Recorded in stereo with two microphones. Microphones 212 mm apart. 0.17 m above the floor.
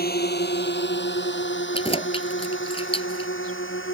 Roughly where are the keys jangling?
Left.